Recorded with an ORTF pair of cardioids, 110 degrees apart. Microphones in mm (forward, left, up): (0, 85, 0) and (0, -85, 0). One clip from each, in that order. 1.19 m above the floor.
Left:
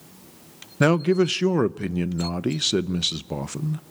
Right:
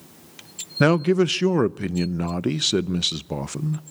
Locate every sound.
0.8 s a man speaking: 15° right, 0.5 m